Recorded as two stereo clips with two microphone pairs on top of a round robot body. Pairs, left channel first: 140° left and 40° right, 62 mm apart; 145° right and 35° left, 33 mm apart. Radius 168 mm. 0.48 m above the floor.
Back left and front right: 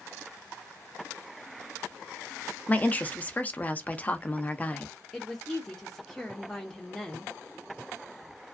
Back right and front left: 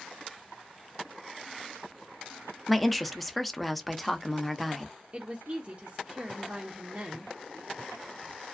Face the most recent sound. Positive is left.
turn(degrees=75)